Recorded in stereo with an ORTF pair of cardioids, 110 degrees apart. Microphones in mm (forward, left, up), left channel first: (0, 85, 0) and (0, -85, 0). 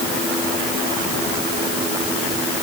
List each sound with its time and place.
Only background noise.